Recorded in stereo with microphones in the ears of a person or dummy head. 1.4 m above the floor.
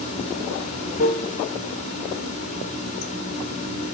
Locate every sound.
0.0 s running water: 30° left (ahead or behind), 1.3 m